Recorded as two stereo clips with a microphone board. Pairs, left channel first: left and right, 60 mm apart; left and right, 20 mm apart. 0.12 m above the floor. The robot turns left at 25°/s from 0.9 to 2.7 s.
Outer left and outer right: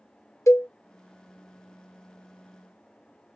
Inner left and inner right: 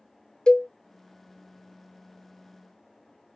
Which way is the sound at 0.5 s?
55° left (ahead or behind).